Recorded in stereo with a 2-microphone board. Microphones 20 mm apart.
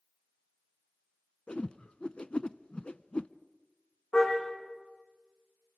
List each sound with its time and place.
1.5 s a whoosh: 70° left (ahead or behind), 0.5 m
4.1 s a car horn: 85° left, 9.5 m